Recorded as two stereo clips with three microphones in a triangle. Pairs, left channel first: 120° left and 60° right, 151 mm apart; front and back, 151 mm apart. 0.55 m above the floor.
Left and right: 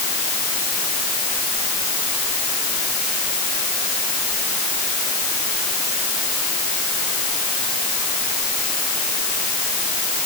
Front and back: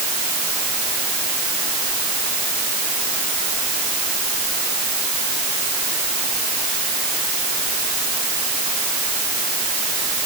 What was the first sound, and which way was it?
Only background noise.